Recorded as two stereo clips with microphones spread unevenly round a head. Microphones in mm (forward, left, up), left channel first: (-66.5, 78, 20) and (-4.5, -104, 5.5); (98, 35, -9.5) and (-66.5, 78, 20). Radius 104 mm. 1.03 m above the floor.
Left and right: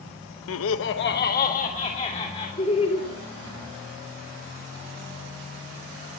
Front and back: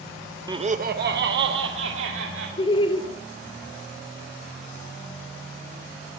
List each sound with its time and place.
0.5 s laughter: 95° left, 0.8 m; by 2.5 s 170° left, 3 m
2.6 s laughter: 45° left, 3 m